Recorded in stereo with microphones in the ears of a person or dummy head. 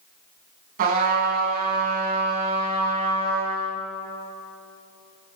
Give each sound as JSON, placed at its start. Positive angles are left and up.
{"t": 0.8, "sound": "a trumpet", "side_deg": -45, "distance_m": 3.0}